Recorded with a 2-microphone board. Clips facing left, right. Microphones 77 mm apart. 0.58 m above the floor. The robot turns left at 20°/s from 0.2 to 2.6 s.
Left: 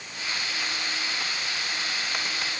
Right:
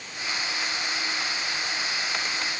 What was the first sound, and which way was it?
Only background noise.